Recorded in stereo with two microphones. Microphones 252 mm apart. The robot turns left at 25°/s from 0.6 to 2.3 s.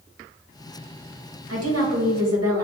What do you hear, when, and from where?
1.5 s a woman speaking: 60° right (ahead or behind), 1.2 m; by 2.6 s 80° right, 1.2 m